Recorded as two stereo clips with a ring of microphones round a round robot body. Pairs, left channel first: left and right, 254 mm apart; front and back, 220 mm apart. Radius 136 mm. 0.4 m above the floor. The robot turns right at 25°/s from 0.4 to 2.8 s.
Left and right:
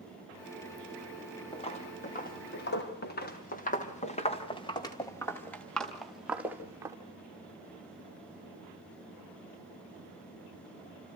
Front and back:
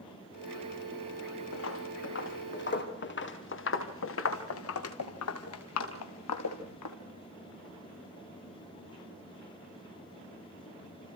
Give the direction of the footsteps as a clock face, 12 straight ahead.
11 o'clock.